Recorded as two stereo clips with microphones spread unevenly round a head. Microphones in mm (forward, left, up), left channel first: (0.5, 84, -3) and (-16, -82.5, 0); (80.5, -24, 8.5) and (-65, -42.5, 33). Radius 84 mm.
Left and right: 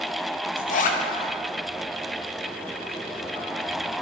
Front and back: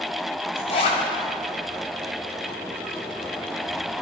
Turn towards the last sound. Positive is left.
turn(degrees=65)